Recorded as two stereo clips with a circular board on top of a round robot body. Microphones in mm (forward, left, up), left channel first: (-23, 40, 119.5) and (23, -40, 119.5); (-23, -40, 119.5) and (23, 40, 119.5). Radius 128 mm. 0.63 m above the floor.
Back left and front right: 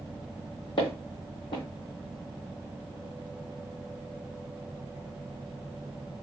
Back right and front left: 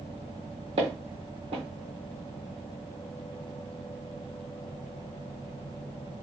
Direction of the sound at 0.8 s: 80° left.